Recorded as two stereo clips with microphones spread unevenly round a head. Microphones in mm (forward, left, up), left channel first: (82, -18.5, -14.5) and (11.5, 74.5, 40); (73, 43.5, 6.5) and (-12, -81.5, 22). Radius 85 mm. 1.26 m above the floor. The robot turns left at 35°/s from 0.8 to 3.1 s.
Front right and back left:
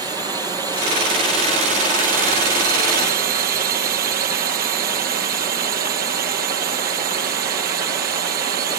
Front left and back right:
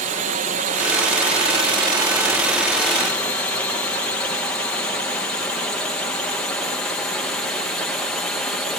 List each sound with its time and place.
0.0 s a drone: 150° right; by 8.8 s 140° left